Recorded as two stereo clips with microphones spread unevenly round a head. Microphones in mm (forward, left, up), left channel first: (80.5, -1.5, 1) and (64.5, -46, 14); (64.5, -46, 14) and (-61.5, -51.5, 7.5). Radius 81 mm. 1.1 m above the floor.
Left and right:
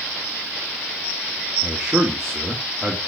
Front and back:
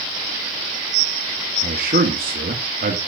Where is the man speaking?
165° left, 1.7 m.